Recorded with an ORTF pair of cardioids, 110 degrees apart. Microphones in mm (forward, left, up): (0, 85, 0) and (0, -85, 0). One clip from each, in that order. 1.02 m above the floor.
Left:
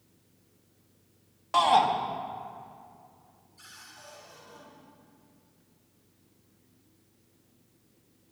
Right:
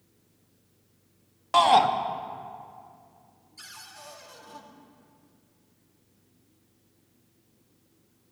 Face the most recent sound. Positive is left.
turn(degrees=-65)